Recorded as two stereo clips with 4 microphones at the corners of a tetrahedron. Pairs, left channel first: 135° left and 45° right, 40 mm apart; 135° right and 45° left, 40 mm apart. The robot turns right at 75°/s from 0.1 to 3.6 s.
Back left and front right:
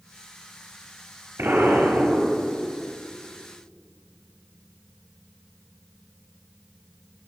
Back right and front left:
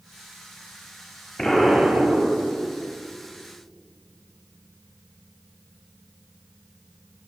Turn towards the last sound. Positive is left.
turn(degrees=110)